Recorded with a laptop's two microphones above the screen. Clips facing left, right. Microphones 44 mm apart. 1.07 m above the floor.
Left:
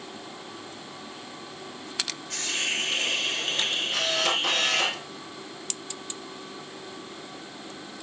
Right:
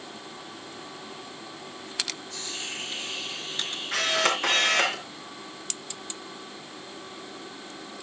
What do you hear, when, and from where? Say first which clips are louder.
2.3 s a hiss: left 7 dB; 75° left (ahead or behind), 1.6 m
3.9 s a camera shutter: right 4 dB; 55° right (ahead or behind), 5.5 m